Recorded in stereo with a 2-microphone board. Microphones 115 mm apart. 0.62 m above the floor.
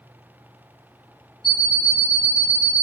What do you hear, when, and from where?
1.4 s an alarm clock: 55° left (ahead or behind), 0.7 m